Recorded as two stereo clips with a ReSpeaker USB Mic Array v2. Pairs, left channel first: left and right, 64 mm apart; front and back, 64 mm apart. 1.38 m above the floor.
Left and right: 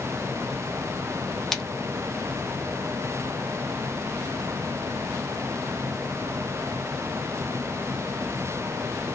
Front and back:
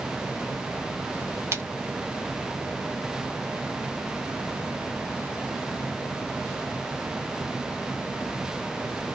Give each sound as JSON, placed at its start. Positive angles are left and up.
{"t": 1.5, "sound": "a splash", "azimuth_deg": 170, "distance_m": 0.8}